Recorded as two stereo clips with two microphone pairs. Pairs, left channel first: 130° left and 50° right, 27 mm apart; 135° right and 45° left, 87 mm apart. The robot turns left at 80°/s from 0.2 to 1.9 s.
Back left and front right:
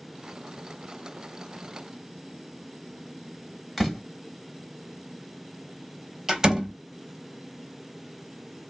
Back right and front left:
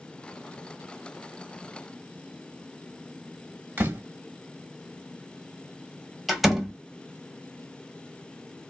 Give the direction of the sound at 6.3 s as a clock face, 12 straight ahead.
1 o'clock.